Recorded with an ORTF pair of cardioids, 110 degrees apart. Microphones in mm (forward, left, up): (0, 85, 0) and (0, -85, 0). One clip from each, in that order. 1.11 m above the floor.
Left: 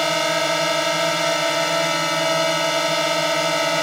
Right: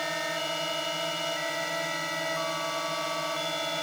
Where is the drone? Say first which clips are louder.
Left 11 dB; 65° left.